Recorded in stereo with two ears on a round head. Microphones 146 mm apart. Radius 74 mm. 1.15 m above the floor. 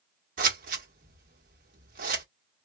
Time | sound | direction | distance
0.4 | scissors | 55° right (ahead or behind) | 1.1 m